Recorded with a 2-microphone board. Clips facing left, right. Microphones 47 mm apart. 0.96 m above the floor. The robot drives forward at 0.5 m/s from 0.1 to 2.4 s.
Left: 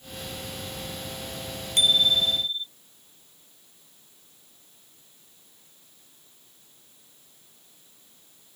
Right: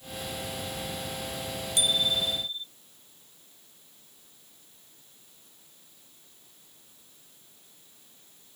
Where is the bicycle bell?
50° left (ahead or behind); by 2.7 s 45° left (ahead or behind).